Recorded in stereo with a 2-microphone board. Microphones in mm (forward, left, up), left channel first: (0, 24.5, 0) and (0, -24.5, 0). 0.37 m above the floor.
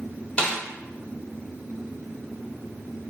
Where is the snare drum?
35° left (ahead or behind), 0.9 m.